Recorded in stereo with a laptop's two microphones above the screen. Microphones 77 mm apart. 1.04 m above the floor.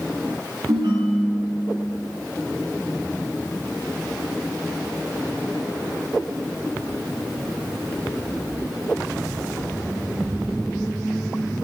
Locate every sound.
0.7 s a ringtone: 85° right, 6.5 m